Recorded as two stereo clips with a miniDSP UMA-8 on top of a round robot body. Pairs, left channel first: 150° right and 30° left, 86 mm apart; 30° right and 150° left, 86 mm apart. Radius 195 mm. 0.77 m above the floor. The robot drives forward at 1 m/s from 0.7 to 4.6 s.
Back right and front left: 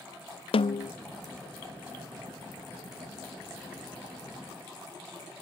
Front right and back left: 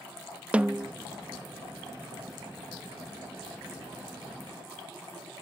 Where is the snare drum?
130° right; by 0.9 s 145° right.